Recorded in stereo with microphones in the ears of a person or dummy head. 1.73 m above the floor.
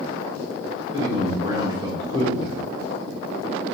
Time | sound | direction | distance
0.9 | a man speaking | 25° right (ahead or behind) | 1.4 m